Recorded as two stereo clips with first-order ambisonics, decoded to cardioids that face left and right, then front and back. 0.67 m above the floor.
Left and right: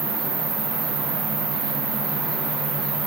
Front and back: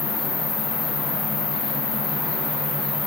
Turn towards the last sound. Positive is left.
turn(degrees=-50)